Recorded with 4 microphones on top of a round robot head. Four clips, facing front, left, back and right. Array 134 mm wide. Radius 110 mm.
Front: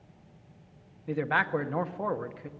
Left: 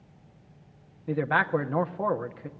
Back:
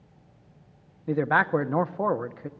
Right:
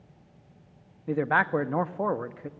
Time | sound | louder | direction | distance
1.1 | a man speaking | right 1 dB, back 5 dB | 160° right | 0.8 m